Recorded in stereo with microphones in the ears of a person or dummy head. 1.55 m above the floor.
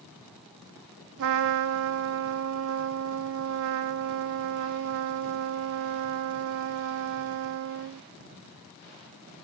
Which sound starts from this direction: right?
A trumpet, at 1.2 s.